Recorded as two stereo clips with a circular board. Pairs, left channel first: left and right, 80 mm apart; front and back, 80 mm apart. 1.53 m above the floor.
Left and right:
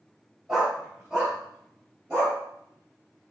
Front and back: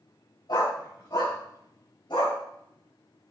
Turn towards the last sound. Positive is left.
turn(degrees=-10)